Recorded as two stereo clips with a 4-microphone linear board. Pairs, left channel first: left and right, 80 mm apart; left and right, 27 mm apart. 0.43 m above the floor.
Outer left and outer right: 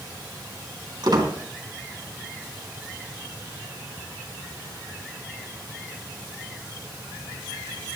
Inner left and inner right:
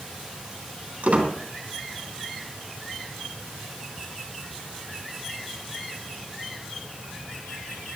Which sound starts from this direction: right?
A squeak, at 1.0 s.